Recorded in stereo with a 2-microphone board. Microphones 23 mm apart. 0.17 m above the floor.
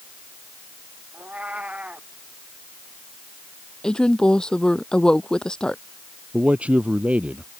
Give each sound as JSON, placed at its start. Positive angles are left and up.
{"t": 1.1, "sound": "a cat meowing", "side_deg": -80}
{"t": 3.8, "sound": "a woman speaking", "side_deg": 40}
{"t": 6.3, "sound": "a man speaking", "side_deg": -75}